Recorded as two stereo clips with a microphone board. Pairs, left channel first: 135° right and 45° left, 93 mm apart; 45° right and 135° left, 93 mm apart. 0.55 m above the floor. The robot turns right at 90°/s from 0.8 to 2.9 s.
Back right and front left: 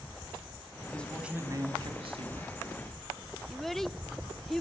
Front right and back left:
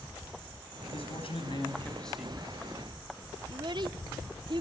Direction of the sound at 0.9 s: 70° right.